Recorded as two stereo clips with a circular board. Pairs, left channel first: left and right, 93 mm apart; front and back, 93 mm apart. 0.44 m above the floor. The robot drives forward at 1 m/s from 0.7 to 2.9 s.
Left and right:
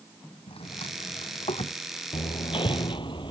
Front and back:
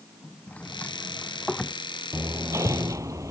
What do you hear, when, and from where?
0.5 s a drawer: 75° left; by 1.8 s 80° left
2.1 s hammering: 115° left; by 3.3 s 125° left